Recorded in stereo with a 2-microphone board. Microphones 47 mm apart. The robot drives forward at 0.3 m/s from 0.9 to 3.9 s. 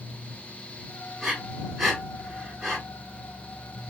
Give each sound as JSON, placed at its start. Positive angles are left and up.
{"t": 1.2, "sound": "breathing", "side_deg": -10, "distance_m": 2.5}